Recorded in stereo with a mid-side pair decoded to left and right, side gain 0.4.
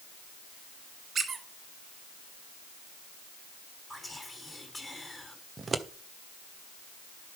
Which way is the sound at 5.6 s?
35° right.